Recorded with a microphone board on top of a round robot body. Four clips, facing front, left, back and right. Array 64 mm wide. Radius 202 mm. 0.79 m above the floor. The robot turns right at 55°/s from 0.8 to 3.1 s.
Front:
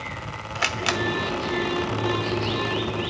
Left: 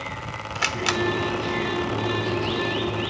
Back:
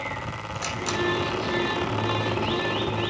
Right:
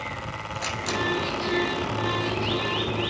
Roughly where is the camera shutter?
Ahead left.